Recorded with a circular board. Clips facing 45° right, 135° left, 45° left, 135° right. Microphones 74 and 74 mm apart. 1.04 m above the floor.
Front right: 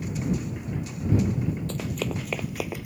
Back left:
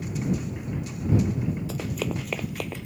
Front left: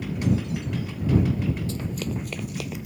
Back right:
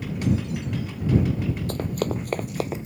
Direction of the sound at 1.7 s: 145° right.